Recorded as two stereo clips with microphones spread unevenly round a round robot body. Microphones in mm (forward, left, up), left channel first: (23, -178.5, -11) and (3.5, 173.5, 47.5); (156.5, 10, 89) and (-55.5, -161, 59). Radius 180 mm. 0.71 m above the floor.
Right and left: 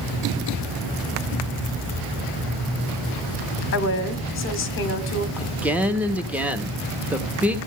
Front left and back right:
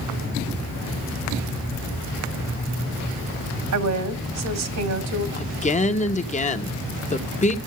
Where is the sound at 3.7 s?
140° right, 1.9 m.